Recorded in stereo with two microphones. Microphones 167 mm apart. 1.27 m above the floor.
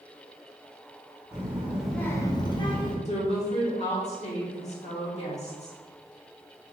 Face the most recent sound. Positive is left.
turn(degrees=40)  # may be behind; listen again after turning